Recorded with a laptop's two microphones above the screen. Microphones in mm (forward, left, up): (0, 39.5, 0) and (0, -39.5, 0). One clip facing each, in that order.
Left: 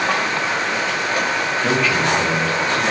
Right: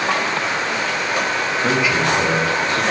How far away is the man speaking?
About 1.0 m.